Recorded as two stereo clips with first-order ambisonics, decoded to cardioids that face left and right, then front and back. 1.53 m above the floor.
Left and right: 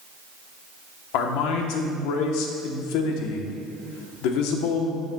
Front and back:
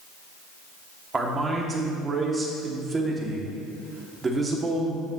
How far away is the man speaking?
About 1.1 m.